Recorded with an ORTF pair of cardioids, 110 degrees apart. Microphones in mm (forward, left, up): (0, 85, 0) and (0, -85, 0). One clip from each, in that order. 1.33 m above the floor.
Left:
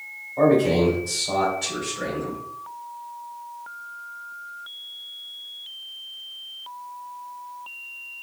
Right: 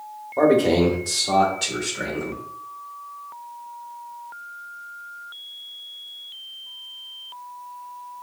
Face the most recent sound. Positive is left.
turn(degrees=-80)